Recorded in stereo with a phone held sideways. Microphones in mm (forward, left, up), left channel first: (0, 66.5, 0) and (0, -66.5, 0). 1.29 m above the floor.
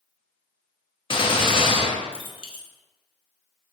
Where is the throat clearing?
I don't hear throat clearing.